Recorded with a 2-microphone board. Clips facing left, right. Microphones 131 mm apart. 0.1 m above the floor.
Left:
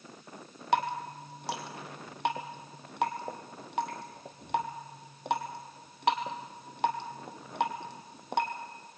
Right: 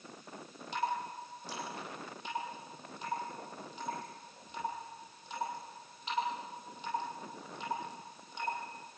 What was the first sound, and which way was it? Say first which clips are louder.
Dripping: left 6 dB; 70° left (ahead or behind).